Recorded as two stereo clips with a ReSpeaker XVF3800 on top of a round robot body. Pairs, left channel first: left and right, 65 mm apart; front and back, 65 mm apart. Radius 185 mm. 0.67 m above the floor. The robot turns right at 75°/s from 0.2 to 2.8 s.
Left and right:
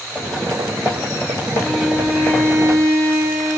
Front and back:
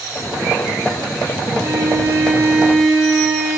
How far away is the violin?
About 0.9 m.